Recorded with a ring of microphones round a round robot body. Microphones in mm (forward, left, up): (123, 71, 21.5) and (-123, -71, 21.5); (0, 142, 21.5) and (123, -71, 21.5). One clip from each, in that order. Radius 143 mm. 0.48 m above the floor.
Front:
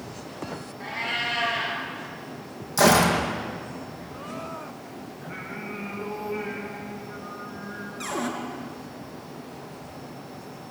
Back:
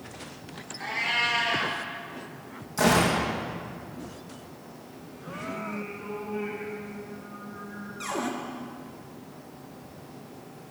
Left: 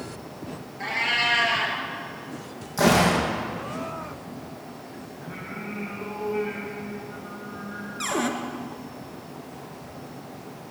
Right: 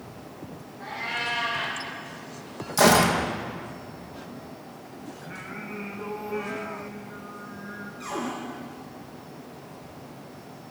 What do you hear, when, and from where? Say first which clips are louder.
0.8 s a cat meowing: back 2 dB, left 7 dB; 135° left, 4.5 m
2.8 s a gunshot: front 4 dB, right 1 dB; 30° right, 4 m
5.2 s singing: back 2 dB, left 2 dB; 20° right, 7 m
8.0 s a cupboard door: front 1 dB, left 6 dB; 115° left, 3 m